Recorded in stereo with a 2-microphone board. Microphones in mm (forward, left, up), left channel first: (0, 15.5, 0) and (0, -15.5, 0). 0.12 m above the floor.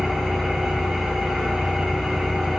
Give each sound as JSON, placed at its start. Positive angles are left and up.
{"t": 0.0, "sound": "an engine running", "side_deg": -5, "distance_m": 7.0}